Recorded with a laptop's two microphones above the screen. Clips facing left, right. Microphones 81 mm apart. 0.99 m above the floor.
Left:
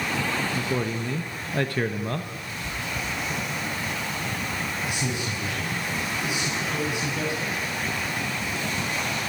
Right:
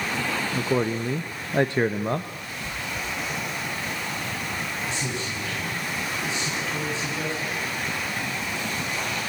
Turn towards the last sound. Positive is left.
turn(degrees=15)  # may be behind; listen again after turning